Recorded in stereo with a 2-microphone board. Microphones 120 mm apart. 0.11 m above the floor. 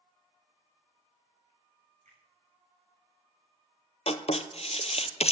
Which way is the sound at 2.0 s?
75° right (ahead or behind).